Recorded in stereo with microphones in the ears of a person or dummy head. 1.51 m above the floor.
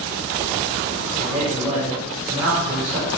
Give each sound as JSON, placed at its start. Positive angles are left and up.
{"t": 1.2, "sound": "a man speaking", "side_deg": -10, "distance_m": 5.5}